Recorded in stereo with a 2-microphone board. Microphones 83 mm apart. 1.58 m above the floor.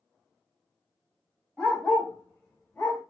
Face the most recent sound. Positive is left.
turn(degrees=20)  # may be behind; listen again after turning